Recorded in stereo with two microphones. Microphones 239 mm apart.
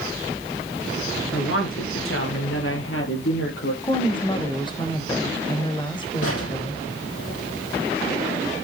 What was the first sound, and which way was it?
A woman speaking, 65° left (ahead or behind).